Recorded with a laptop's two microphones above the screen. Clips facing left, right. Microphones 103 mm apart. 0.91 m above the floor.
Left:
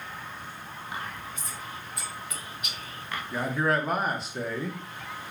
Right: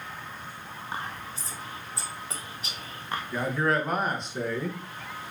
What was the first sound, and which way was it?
Whispering, 35° right (ahead or behind).